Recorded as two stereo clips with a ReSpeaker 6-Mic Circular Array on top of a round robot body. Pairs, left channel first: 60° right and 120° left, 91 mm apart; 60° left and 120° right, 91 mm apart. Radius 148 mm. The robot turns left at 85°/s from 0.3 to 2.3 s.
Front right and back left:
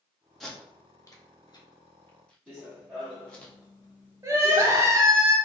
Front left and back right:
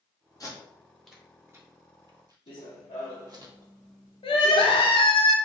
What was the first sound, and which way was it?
Tape being pulled, 30° left.